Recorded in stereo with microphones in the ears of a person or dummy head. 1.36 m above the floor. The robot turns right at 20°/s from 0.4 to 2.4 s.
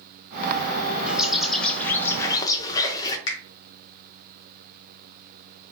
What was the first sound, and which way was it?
A bird, centre (ahead or behind).